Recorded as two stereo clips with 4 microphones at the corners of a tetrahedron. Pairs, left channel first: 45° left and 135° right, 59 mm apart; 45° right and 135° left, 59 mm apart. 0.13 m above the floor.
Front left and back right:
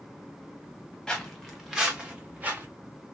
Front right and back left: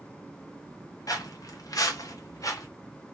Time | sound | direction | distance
1.1 | footsteps | 35° right | 1.3 m